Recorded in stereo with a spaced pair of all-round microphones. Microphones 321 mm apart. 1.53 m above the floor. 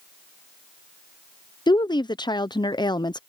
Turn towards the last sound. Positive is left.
turn(degrees=15)  # may be behind; listen again after turning